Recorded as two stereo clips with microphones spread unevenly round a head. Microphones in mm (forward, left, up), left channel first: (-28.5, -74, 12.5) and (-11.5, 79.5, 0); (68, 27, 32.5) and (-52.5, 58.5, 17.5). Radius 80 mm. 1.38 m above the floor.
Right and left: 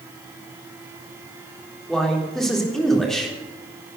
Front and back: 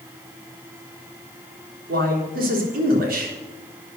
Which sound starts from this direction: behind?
A man speaking, at 1.9 s.